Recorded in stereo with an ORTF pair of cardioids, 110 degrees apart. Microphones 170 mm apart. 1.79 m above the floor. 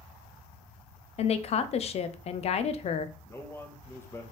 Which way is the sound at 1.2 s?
40° left.